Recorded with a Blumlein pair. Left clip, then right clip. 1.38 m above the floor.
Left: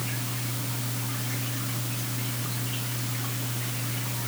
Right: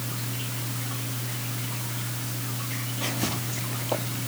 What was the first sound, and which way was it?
Only background noise.